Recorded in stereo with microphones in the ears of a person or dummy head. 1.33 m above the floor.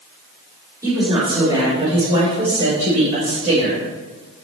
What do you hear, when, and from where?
0.8 s a woman speaking: 20° right (ahead or behind), 3 m; by 3.8 s 40° right (ahead or behind), 5 m